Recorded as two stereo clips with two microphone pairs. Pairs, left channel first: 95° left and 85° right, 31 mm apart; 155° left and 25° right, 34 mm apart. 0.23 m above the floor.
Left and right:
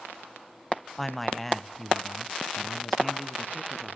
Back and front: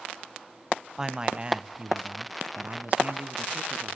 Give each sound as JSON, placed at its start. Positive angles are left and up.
{"t": 1.0, "sound": "a man speaking", "azimuth_deg": 25, "distance_m": 1.2}